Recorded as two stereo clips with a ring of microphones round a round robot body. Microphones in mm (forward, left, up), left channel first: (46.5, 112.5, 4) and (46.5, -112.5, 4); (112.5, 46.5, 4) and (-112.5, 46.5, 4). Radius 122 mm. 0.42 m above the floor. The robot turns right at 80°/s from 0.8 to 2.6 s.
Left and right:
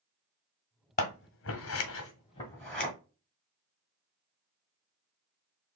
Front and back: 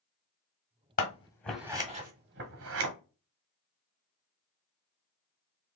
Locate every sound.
1.0 s scissors: 45° left, 1.2 m; by 2.9 s 175° left, 1.2 m